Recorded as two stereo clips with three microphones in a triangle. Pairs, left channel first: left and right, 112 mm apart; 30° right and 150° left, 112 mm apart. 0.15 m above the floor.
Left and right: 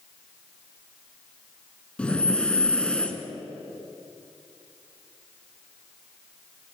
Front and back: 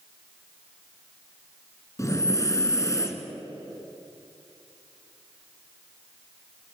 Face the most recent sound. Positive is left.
turn(degrees=15)